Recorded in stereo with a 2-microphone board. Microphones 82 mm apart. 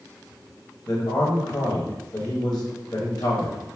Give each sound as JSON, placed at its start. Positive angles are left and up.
{"t": 0.9, "sound": "a man speaking", "side_deg": 50, "distance_m": 1.2}